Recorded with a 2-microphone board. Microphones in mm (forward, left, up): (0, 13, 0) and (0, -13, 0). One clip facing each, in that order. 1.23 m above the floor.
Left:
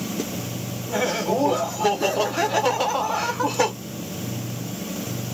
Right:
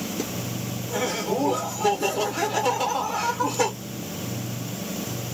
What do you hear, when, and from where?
0.9 s laughter: 20° left (ahead or behind), 0.8 m